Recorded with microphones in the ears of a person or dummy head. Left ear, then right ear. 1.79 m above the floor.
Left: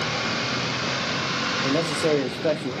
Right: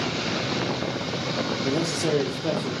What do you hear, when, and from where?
1.6 s a man speaking: 35° left (ahead or behind), 0.6 m